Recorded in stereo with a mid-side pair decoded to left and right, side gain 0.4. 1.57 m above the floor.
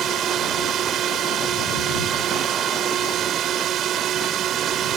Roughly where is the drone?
Right.